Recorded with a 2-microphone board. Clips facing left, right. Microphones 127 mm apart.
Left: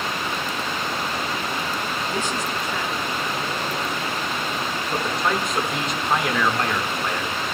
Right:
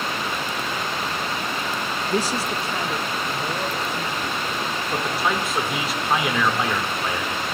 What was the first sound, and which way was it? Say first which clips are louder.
A man speaking: right 6 dB; 35° right (ahead or behind).